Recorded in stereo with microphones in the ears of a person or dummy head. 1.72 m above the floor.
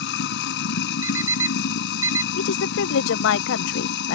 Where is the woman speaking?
75° left (ahead or behind).